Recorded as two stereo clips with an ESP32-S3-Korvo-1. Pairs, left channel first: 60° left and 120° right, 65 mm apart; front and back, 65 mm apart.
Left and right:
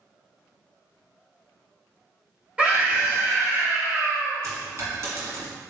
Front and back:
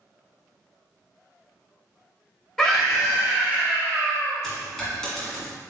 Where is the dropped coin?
85° right, 1.4 m.